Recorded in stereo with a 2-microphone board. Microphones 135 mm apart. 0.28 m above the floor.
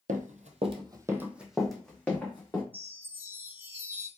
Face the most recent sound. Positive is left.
turn(degrees=-15)  # may be behind; listen again after turning